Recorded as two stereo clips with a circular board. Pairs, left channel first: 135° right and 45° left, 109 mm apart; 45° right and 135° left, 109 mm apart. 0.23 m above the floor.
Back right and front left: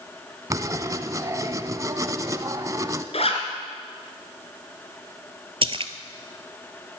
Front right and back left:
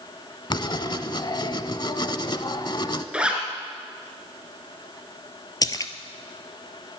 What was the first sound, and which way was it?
Writing, 10° right.